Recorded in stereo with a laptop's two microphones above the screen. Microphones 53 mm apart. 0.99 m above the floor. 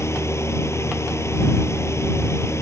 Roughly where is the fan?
Left.